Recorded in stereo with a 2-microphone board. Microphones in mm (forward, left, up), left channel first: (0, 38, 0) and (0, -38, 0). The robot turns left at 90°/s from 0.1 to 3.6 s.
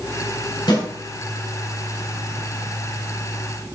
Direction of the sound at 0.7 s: 65° left (ahead or behind).